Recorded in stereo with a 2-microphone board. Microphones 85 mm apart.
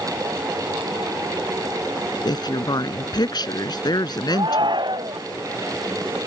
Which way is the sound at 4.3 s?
60° right (ahead or behind).